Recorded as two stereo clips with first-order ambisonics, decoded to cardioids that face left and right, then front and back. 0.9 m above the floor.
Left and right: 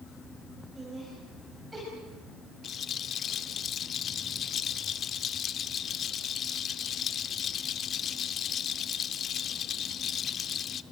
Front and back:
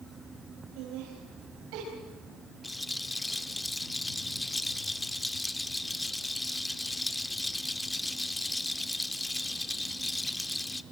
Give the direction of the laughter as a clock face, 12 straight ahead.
6 o'clock.